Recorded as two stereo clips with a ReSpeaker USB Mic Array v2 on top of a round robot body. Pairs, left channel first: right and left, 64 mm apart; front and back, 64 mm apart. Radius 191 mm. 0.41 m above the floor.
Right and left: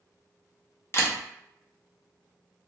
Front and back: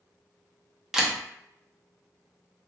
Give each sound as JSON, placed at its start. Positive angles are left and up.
{"t": 0.9, "sound": "a camera shutter", "azimuth_deg": -100, "distance_m": 1.0}